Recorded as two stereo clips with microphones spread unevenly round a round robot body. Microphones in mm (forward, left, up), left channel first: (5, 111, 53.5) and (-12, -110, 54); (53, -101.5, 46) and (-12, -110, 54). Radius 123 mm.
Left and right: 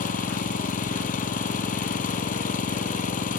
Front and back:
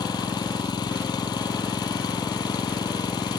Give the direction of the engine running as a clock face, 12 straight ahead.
11 o'clock.